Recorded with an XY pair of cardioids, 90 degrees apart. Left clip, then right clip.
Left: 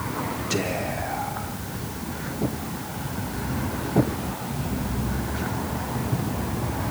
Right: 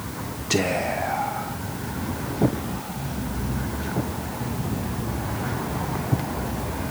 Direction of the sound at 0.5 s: 40° right.